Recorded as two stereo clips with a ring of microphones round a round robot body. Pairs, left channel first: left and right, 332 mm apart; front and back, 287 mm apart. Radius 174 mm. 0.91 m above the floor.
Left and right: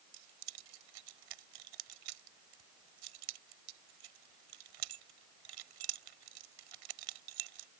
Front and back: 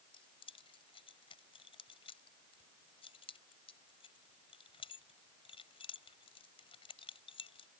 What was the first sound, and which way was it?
Keys jangling, 75° right.